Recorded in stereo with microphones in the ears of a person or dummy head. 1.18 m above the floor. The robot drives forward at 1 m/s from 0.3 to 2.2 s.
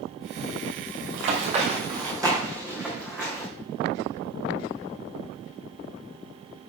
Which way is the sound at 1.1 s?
50° right (ahead or behind).